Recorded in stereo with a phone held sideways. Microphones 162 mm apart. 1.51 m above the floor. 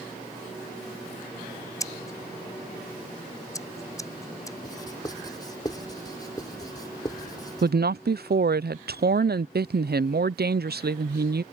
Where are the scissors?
20° left (ahead or behind).